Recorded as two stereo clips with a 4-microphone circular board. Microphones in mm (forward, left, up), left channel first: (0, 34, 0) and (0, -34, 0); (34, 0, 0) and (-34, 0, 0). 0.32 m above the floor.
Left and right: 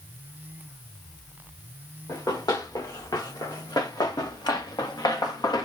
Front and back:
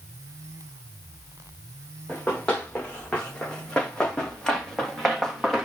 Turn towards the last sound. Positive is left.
turn(degrees=90)